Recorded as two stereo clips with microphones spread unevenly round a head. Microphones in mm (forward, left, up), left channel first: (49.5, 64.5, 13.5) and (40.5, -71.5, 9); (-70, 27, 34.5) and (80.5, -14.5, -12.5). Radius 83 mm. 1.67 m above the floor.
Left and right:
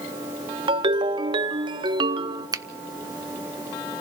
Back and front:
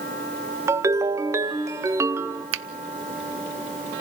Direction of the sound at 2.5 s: 30° right.